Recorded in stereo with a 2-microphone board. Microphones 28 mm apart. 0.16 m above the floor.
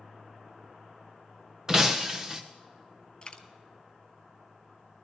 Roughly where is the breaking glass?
Right.